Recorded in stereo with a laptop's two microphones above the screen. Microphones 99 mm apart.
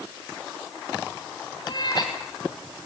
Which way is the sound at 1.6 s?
45° left (ahead or behind).